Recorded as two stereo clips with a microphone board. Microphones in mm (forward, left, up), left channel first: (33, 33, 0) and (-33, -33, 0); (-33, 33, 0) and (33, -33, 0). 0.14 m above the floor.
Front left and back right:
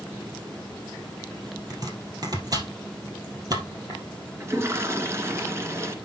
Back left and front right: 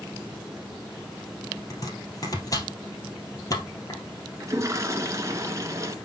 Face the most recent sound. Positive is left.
turn(degrees=-85)